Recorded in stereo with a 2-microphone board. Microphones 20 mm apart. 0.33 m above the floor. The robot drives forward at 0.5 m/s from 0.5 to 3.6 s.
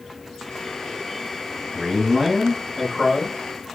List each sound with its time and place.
1.7 s a man speaking: 5° left (ahead or behind), 2 m